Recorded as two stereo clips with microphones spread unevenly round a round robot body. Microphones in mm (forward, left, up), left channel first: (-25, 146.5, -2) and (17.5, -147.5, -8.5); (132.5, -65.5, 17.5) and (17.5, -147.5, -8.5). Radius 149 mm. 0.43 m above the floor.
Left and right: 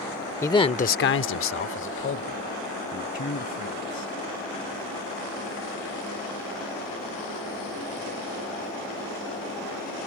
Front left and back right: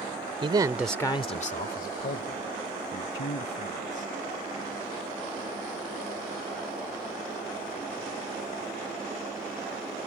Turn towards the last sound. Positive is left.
turn(degrees=35)